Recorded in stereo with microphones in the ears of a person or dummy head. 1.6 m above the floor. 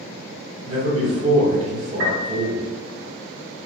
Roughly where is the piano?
Right.